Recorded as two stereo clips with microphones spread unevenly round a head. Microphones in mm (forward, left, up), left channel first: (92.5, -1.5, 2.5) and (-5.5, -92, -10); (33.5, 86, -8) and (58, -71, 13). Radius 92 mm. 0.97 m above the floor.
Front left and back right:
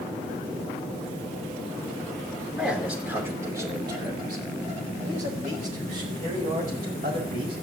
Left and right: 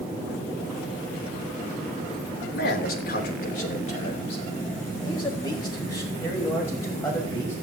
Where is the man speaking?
135° left, 3 m; by 7.5 s straight behind, 6.5 m.